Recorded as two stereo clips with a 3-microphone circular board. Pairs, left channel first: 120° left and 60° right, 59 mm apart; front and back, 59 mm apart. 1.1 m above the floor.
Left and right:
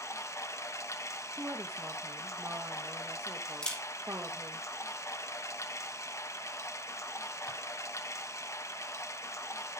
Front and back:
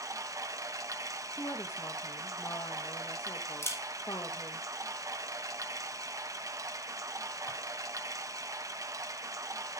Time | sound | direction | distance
0.0 | running water | 155° left | 0.9 m
1.4 | a woman speaking | 10° right | 1.4 m
3.6 | a camera shutter | 45° left | 3.5 m